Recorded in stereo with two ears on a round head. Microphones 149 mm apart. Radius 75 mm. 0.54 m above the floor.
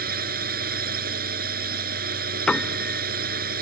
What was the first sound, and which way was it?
A drone, 60° right (ahead or behind).